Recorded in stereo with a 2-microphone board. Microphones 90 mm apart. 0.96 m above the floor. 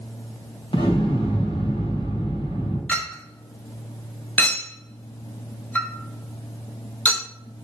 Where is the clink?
15° left (ahead or behind), 1.1 m.